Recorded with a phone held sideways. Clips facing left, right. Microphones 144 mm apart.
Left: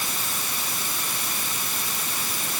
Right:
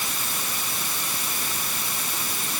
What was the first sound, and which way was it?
Only background noise.